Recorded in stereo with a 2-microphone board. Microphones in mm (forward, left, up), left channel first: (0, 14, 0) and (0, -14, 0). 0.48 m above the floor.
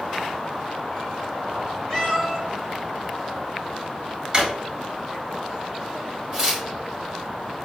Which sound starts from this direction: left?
A cat meowing, at 1.9 s.